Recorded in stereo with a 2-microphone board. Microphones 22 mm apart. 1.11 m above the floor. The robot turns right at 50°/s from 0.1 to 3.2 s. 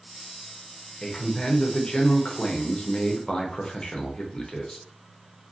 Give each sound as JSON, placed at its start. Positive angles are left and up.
{"t": 1.0, "sound": "a man speaking", "azimuth_deg": 25, "distance_m": 0.6}